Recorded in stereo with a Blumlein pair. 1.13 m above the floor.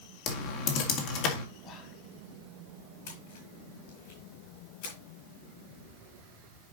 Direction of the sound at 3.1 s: 55° left.